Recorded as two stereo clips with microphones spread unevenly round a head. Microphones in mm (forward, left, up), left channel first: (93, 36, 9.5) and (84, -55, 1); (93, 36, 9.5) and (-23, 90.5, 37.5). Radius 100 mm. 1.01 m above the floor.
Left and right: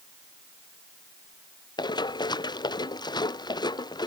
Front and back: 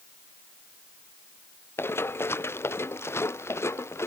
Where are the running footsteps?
50° left; by 4.1 s 45° left.